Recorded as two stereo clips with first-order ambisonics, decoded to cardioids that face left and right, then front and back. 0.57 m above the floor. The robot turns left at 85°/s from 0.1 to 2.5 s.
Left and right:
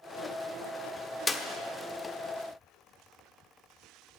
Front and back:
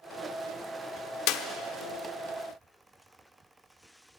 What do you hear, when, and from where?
1.3 s a clap: 15° left, 0.9 m; by 1.4 s straight ahead, 0.9 m